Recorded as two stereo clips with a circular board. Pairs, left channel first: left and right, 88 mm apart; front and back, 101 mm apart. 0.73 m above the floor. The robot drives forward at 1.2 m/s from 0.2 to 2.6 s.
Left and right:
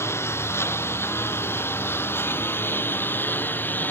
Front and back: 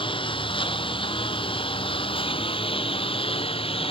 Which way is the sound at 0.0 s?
30° left.